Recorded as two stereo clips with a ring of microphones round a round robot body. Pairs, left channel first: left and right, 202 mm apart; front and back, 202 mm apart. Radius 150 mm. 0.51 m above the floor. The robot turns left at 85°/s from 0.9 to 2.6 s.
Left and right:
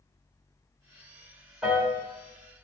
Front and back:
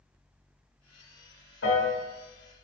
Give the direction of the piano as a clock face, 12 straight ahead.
12 o'clock.